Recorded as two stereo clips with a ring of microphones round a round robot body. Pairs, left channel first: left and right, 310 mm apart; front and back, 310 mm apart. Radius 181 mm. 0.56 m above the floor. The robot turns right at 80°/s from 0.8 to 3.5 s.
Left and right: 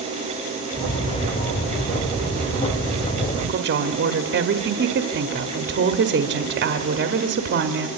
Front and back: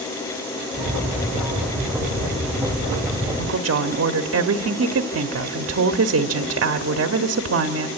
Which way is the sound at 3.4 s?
150° right.